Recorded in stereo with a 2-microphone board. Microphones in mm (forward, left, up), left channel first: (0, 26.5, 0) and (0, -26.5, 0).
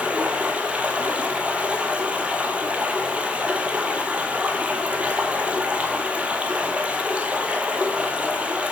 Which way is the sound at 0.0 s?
20° right (ahead or behind).